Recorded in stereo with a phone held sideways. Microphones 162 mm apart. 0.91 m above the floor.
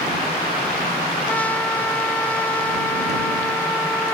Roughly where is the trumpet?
Centre.